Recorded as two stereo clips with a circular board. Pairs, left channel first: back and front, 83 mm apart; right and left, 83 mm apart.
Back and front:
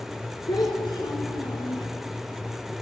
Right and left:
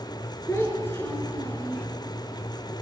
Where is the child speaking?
150° right, 3 m; by 1.9 s 155° right, 2 m.